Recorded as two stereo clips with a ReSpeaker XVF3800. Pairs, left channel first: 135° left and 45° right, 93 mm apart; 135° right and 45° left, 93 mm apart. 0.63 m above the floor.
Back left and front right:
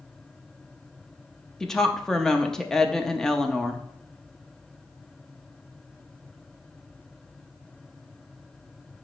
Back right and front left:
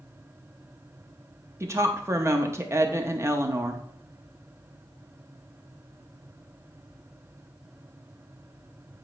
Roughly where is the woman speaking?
Ahead left.